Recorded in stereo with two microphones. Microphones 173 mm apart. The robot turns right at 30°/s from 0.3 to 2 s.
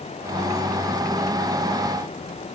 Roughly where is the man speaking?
No man speaking in this recording.